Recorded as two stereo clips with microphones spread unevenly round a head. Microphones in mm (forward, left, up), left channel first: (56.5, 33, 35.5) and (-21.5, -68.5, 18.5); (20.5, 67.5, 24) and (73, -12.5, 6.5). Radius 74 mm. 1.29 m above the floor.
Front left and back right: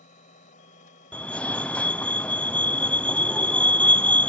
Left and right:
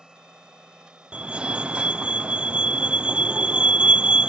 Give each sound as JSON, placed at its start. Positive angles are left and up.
{"t": 0.0, "sound": "a machine running", "azimuth_deg": 25}
{"t": 1.1, "sound": "a fire alarm", "azimuth_deg": -35}